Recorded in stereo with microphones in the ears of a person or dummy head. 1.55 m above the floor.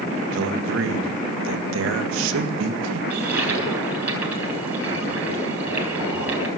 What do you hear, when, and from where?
0.3 s a man speaking: 85° right, 1.9 m
3.1 s a toilet flushing: 15° right (ahead or behind), 7.5 m